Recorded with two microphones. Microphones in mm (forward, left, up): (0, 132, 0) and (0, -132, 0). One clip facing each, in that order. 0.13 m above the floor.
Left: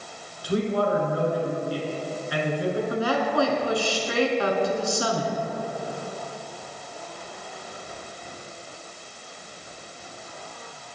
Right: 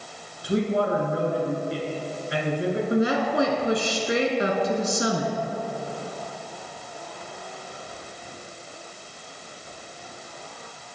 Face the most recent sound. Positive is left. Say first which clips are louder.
# right 2 dB
turn(degrees=-20)  # may be behind; listen again after turning